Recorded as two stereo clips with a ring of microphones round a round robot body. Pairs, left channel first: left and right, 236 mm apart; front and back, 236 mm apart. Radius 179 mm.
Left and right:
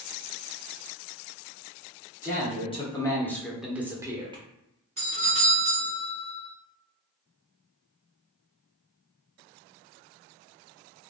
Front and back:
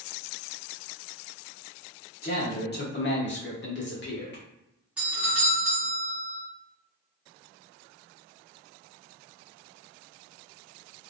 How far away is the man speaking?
About 1.3 m.